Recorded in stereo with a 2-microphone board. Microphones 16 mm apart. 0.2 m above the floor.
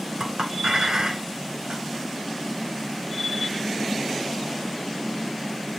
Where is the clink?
65° right (ahead or behind), 2.5 m.